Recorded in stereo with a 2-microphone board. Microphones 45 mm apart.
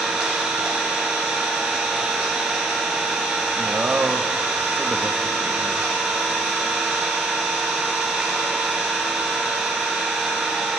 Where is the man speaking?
45° right (ahead or behind), 0.7 m.